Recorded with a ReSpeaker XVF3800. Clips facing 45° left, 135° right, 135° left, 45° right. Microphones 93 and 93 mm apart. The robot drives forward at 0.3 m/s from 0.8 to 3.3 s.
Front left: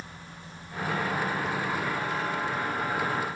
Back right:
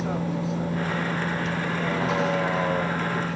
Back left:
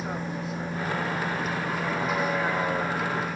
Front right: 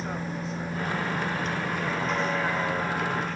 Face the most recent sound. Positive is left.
turn(degrees=-145)